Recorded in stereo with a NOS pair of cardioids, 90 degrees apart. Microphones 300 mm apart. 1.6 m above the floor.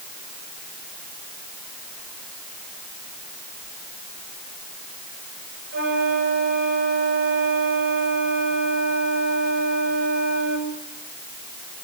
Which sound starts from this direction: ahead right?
A flute, at 5.7 s.